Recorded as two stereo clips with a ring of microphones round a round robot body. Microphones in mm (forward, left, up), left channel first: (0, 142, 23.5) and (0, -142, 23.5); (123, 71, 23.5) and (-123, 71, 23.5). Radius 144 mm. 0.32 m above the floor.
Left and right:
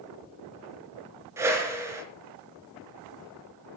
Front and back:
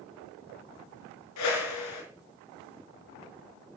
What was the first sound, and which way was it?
A whoosh, 10° right.